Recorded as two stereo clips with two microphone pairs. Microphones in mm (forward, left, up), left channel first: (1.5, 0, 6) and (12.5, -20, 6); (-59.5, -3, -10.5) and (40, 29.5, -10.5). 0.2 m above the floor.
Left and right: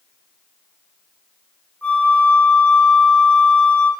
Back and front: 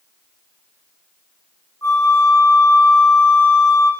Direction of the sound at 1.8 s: 140° left.